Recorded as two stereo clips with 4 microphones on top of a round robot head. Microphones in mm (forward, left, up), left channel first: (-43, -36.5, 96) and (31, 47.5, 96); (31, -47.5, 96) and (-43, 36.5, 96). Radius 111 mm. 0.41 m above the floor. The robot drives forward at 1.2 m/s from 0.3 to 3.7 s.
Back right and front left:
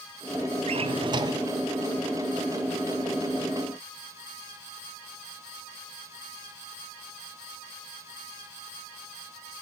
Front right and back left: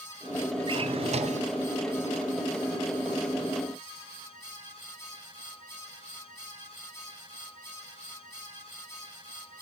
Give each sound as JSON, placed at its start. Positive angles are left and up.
{"t": 0.7, "sound": "a drawer", "azimuth_deg": 80, "distance_m": 1.9}